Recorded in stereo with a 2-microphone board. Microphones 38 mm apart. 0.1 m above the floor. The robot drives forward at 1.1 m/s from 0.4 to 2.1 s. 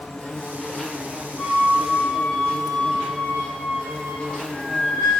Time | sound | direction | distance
0.0 | an insect | 15° left (ahead or behind) | 1.2 m
1.4 | a flute | 5° left (ahead or behind) | 2.0 m